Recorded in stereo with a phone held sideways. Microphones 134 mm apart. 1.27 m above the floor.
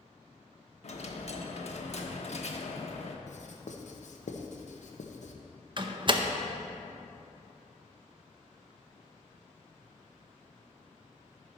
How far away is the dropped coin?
About 1.1 m.